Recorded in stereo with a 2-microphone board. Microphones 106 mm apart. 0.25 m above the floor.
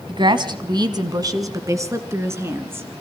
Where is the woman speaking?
50° right (ahead or behind), 1.5 m; by 2.9 s 20° right (ahead or behind), 2.5 m.